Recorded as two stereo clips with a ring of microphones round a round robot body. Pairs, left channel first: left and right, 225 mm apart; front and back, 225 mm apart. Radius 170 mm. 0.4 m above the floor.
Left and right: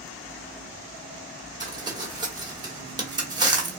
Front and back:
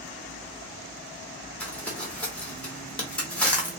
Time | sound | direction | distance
1.6 | crumpling | 70° right | 1.4 m